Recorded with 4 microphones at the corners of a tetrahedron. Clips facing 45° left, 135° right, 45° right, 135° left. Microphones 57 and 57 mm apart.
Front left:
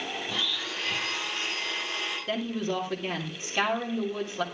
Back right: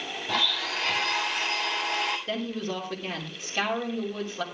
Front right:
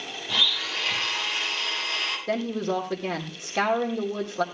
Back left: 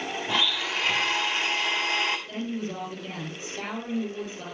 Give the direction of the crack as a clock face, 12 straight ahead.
I don't hear a crack.